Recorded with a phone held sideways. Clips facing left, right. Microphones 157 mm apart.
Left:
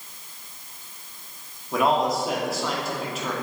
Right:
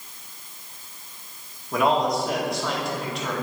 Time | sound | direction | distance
1.7 | a man speaking | 5° left (ahead or behind) | 1.7 m